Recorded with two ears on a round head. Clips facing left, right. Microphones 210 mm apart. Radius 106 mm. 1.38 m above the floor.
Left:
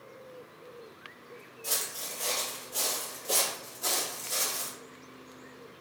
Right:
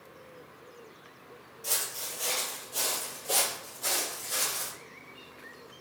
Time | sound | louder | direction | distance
1.6 | footsteps | even | 5° right (ahead or behind) | 1.5 m